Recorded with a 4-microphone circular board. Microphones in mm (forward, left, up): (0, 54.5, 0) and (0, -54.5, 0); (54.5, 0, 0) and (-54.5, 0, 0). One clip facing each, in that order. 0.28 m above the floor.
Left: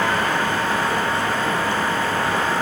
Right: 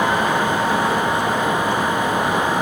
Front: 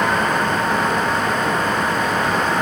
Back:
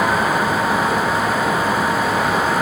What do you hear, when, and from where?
Only background noise.